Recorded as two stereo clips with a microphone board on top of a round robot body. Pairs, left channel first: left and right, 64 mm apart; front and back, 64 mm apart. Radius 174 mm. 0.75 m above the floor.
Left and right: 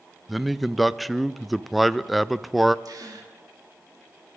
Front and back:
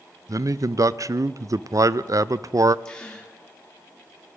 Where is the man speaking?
Straight behind, 0.5 m.